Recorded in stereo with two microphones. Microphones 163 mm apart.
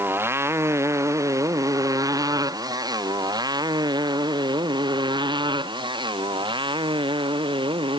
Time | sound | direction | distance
0.0 | a motorcycle | 10° right (ahead or behind) | ?